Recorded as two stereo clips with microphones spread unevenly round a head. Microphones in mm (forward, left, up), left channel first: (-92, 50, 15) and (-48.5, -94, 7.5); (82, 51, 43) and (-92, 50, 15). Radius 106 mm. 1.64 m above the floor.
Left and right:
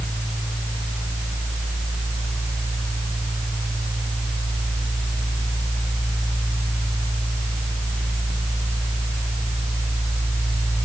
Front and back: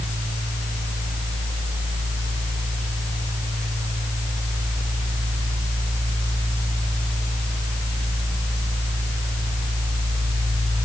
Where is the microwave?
I don't hear a microwave.